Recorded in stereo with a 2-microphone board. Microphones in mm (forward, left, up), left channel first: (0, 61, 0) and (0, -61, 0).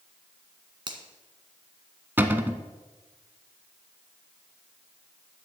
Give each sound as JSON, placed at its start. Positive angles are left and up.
{"t": 0.9, "sound": "a finger snap", "side_deg": -35, "distance_m": 1.7}
{"t": 2.2, "sound": "a cupboard door", "side_deg": -15, "distance_m": 0.9}